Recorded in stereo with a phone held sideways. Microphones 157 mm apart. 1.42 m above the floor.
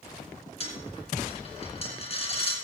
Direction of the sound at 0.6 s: 40° left (ahead or behind).